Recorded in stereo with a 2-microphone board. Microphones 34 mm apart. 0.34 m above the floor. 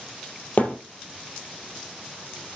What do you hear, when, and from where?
0.6 s a thud: 45° left (ahead or behind), 3.5 m